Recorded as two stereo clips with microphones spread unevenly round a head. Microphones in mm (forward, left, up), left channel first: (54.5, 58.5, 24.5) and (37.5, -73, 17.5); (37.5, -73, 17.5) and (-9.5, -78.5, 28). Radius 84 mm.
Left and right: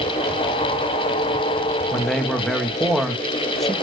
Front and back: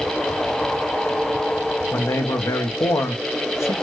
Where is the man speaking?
5° right, 0.6 m.